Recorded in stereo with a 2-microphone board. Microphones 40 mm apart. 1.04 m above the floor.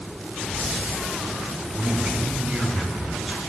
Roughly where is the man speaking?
Centre.